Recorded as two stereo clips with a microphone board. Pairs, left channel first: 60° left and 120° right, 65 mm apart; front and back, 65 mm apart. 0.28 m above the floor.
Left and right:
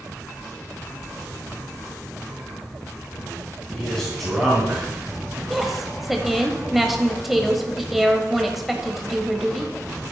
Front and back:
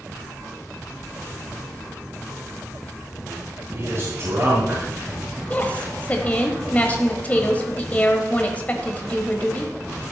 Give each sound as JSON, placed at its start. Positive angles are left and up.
{"t": 3.7, "sound": "a man speaking", "azimuth_deg": 140, "distance_m": 3.0}
{"t": 5.5, "sound": "a woman speaking", "azimuth_deg": -35, "distance_m": 1.0}